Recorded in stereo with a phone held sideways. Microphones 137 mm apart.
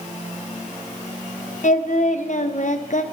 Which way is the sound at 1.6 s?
60° left (ahead or behind).